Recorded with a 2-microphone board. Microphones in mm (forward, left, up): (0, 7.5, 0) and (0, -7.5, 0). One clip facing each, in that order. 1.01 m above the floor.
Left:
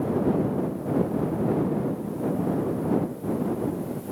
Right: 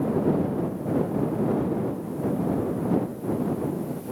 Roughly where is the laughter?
I don't hear laughter.